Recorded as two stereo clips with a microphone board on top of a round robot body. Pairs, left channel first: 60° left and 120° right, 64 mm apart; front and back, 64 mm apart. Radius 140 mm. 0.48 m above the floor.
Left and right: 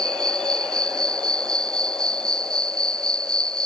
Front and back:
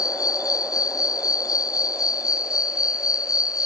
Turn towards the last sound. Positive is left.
turn(degrees=-20)